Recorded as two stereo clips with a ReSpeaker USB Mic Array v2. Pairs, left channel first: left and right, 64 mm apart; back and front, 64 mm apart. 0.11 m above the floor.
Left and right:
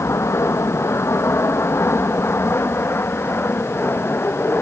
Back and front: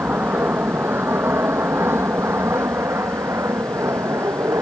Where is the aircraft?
55° left; by 4.6 s 35° left.